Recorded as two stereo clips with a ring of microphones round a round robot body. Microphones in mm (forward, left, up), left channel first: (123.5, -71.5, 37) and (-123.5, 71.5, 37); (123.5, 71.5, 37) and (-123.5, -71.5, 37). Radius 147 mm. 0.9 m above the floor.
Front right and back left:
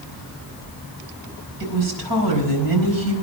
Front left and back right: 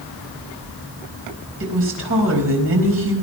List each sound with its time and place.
1.6 s a woman speaking: 165° left, 4.5 m